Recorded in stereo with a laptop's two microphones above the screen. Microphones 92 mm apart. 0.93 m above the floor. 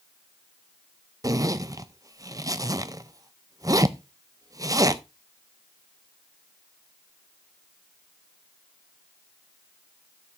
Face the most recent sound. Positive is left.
turn(degrees=-40)  # may be behind; listen again after turning